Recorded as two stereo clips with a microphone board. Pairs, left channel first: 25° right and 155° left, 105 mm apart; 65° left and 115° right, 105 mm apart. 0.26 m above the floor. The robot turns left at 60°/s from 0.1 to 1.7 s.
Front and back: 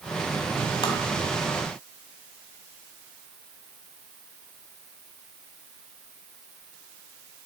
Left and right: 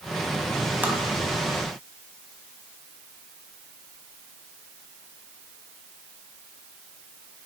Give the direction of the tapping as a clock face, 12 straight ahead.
1 o'clock.